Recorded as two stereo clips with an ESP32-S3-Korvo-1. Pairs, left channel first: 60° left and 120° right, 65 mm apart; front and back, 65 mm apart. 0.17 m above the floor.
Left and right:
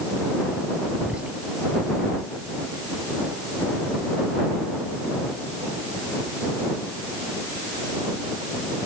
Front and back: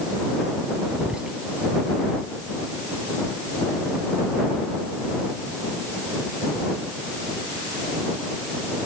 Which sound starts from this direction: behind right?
Whispering, at 1.0 s.